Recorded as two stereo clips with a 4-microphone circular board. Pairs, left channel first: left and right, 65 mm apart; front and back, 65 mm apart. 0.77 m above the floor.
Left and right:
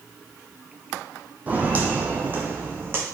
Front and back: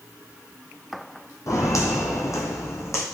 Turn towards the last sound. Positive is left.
turn(degrees=-35)